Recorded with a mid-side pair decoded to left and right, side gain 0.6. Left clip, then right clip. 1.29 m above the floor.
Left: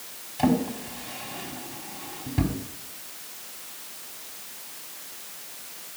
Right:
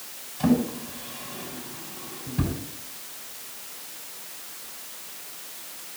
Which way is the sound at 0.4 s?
65° left.